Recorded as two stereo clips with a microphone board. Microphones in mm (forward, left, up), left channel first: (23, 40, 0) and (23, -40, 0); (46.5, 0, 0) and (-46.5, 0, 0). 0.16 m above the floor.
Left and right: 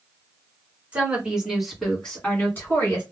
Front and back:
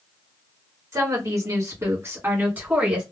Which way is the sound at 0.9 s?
155° right.